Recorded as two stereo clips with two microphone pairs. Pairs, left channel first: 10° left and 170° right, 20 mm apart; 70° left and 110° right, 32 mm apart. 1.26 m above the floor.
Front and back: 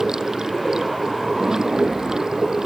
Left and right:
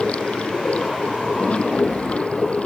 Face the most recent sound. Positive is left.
turn(degrees=125)